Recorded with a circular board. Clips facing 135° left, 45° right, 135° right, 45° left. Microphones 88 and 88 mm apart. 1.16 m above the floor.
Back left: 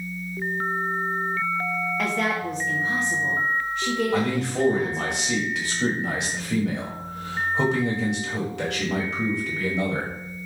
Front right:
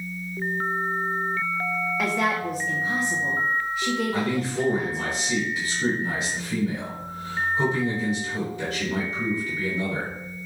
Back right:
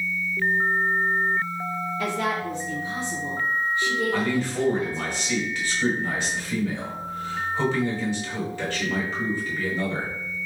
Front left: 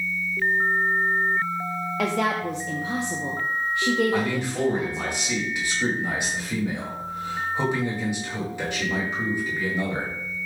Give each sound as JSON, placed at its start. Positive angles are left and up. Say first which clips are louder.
{"t": 2.0, "sound": "a woman speaking", "louder": "front right 2 dB, front left 4 dB", "azimuth_deg": 40, "distance_m": 0.6}
{"t": 4.1, "sound": "a man speaking", "louder": "back left 2 dB, even", "azimuth_deg": 120, "distance_m": 1.5}